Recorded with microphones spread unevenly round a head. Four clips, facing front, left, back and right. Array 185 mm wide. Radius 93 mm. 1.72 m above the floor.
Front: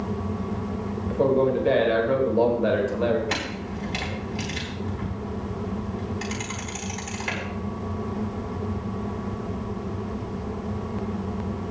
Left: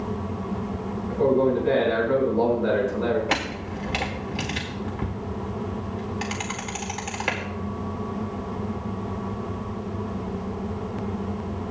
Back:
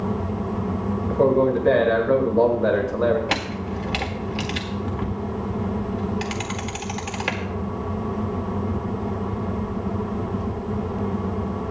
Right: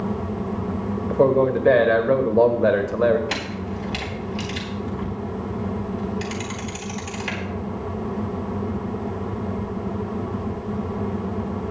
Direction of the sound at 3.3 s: 140° left.